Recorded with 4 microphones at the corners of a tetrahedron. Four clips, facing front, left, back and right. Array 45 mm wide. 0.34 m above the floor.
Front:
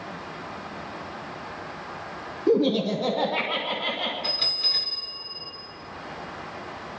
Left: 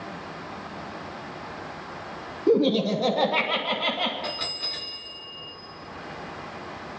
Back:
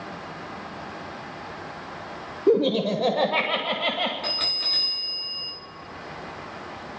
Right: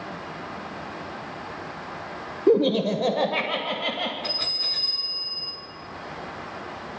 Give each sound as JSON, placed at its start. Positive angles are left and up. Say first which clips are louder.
{"t": 2.5, "sound": "laughter", "louder": "right 1 dB, back 1 dB", "azimuth_deg": -120, "distance_m": 1.1}
{"t": 4.2, "sound": "a bell", "louder": "right 3 dB, even", "azimuth_deg": -170, "distance_m": 6.0}